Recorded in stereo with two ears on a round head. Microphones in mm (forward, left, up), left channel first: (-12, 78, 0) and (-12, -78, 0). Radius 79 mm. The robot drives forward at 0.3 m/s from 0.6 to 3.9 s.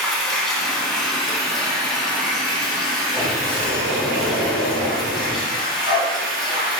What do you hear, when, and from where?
0.0 s running water: centre (ahead or behind), 1.7 m
3.1 s a sliding door: 10° left (ahead or behind), 2 m; by 5.4 s 5° left (ahead or behind), 2.5 m
5.5 s a dog barking: 25° right (ahead or behind), 2.5 m